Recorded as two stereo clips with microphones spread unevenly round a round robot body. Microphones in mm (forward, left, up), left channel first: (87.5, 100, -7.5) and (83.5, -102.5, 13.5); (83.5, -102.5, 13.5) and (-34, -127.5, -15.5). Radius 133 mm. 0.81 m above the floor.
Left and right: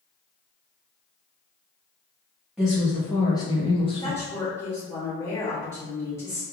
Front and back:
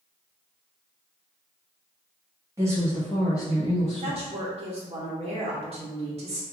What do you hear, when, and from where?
2.6 s a woman speaking: 175° left, 0.8 m; by 4.2 s 35° left, 1.0 m
4.0 s a woman speaking: 165° left, 0.8 m